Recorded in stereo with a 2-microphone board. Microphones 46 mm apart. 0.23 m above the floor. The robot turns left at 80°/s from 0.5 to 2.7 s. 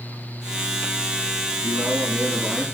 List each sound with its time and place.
1.6 s a man speaking: 105° right, 7.5 m; by 2.6 s 175° left, 7.5 m